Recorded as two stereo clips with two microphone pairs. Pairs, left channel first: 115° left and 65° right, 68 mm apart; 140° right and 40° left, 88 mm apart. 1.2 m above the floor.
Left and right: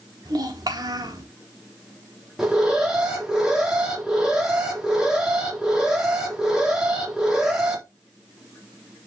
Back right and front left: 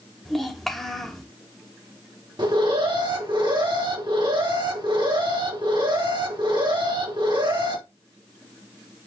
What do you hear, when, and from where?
0.2 s a child speaking: 50° right, 3 m
2.4 s an alarm: 15° left, 3.5 m